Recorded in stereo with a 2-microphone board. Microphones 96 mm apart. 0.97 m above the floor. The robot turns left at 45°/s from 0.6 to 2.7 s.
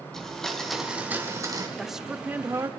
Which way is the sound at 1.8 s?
Straight ahead.